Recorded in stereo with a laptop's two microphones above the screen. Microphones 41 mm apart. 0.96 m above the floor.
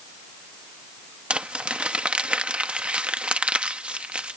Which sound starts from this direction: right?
Crumpling, at 1.3 s.